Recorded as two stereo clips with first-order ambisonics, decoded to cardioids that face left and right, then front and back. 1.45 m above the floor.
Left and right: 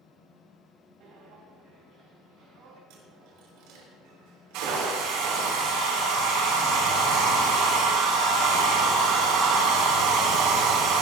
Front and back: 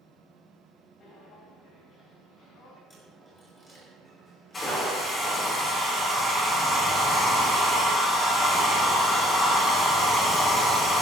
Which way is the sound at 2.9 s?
75° right.